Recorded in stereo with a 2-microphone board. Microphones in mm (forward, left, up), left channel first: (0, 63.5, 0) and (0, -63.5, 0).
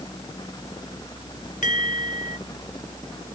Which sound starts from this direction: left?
A bell, at 1.6 s.